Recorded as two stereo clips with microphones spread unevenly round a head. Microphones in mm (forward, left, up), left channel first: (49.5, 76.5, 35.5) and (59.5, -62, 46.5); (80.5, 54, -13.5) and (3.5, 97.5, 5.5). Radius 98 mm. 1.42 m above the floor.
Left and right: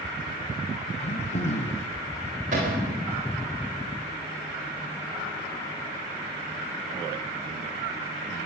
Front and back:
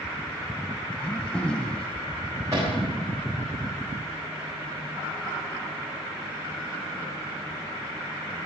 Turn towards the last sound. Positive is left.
turn(degrees=-135)